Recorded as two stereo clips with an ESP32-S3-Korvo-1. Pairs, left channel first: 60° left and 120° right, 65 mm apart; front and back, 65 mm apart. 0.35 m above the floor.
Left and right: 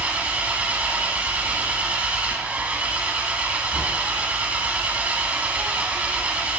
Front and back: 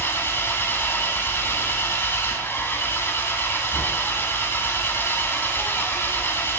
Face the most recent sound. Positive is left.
turn(degrees=-50)